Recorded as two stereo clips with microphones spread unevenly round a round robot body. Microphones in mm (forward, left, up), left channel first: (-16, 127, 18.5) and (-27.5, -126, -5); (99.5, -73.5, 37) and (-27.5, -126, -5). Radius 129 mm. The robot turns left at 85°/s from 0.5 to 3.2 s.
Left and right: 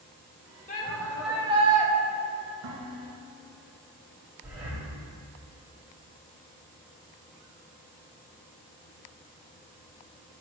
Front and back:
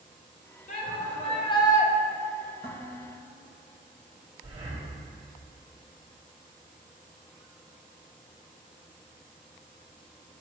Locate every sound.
0.7 s a shout: 40° left, 1.6 m; by 1.9 s 65° right, 1.6 m
2.6 s dishes clattering: 110° right, 2.5 m; by 3.4 s 155° right, 2.5 m
4.4 s breathing: 175° right, 2.5 m